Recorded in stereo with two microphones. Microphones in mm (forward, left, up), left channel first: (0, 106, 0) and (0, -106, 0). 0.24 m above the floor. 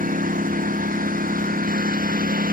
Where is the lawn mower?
45° right (ahead or behind).